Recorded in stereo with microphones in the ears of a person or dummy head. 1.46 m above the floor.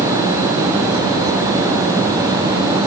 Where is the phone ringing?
I don't hear a phone ringing.